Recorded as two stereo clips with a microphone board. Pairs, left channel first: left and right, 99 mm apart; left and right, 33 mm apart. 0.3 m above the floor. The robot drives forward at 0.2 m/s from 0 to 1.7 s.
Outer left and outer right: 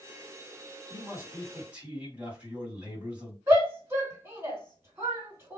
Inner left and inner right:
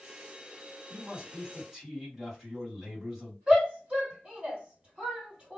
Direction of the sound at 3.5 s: 30° right (ahead or behind).